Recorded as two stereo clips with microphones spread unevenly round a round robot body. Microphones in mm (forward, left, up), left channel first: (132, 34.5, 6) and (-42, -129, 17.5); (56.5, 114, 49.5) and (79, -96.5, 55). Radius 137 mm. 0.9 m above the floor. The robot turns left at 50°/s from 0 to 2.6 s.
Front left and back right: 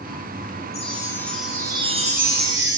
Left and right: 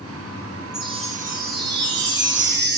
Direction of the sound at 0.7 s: 10° right.